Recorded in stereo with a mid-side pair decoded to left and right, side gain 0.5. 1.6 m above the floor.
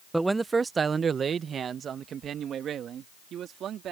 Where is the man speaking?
10° right; by 3.9 s 60° right.